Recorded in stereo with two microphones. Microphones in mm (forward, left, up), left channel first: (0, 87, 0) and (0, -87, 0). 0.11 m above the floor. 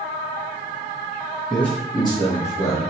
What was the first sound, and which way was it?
A man speaking, centre (ahead or behind).